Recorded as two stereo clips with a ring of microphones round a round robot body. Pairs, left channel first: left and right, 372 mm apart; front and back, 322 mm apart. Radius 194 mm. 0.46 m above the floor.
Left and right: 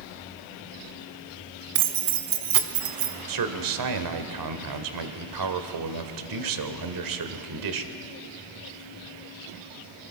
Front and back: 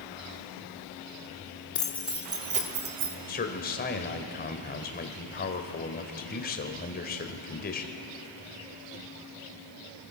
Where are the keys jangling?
75° right, 1.1 m; by 3.2 s 130° right, 1.6 m.